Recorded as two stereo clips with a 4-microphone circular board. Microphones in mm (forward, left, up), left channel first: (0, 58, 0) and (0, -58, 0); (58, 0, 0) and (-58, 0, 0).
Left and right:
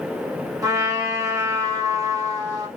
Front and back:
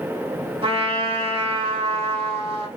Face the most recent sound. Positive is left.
turn(degrees=-150)